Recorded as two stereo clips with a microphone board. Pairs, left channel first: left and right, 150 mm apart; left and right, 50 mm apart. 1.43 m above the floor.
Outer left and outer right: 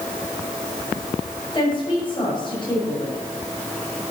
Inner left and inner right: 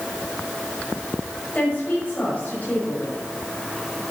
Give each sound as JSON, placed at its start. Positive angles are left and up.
{"t": 1.5, "sound": "a woman speaking", "side_deg": 30, "distance_m": 6.5}